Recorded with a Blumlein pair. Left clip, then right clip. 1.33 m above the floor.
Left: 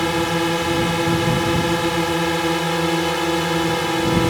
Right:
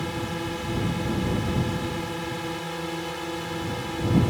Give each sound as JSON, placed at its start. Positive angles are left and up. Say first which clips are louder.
{"t": 0.0, "sound": "a drone", "louder": "left 11 dB", "azimuth_deg": 30}